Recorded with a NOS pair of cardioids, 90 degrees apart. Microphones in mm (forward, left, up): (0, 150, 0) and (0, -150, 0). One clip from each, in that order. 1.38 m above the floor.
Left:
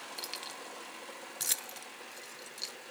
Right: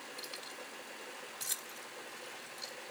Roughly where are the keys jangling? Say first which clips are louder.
Left 5 dB; ahead left.